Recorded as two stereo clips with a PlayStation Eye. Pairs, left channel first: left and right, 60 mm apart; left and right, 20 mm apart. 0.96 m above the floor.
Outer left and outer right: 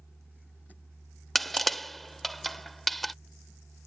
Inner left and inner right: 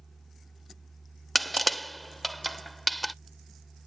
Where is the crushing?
Centre (ahead or behind).